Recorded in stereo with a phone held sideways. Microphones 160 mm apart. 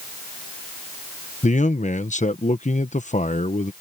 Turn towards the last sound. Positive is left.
turn(degrees=50)  # may be behind; listen again after turning